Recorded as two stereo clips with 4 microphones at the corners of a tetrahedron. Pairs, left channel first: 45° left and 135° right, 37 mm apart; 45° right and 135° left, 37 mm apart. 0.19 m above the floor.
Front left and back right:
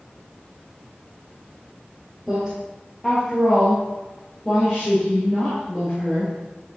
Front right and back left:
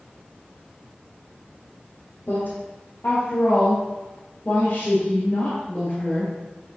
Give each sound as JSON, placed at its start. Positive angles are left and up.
{"t": 2.3, "sound": "a woman speaking", "azimuth_deg": -45, "distance_m": 3.5}